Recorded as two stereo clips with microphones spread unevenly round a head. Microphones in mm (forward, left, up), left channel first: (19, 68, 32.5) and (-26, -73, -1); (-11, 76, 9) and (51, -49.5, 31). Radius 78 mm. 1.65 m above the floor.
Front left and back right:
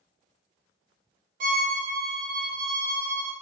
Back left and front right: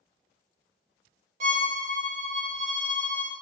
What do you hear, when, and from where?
1.4 s a violin: 70° right, 0.7 m